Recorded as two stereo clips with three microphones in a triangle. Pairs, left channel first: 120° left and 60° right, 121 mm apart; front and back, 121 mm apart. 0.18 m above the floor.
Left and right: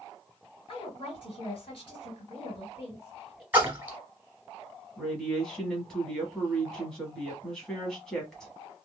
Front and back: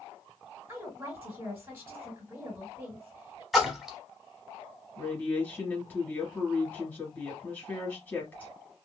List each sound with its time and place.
0.7 s a woman speaking: 120° left, 2 m
3.5 s a splash: 95° right, 1.0 m
5.0 s a woman speaking: 40° left, 1.1 m